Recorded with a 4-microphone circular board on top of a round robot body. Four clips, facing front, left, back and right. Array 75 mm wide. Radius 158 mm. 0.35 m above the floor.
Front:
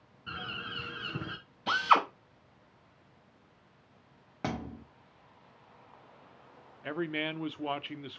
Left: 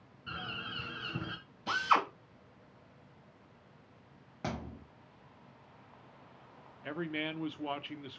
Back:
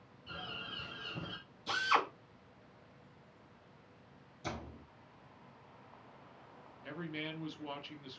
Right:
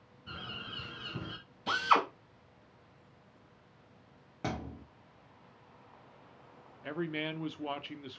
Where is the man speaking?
5° left, 1.0 m.